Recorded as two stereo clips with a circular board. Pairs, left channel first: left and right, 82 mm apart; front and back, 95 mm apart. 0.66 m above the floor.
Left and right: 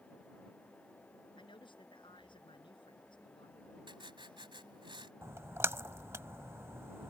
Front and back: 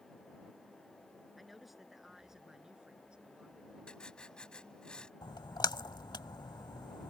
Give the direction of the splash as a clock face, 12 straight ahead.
1 o'clock.